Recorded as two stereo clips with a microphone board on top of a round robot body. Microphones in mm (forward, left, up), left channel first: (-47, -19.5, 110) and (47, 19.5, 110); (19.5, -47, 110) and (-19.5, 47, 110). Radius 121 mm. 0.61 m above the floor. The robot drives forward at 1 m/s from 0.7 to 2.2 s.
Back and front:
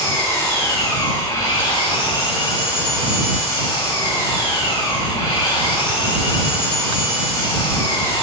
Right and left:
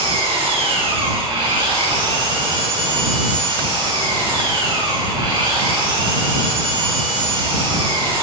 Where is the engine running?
140° left, 2.5 m; by 8.2 s 155° left, 4 m.